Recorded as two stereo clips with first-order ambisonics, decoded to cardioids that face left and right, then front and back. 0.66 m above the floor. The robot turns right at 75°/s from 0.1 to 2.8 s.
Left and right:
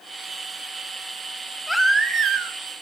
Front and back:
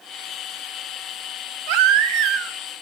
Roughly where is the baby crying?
Behind.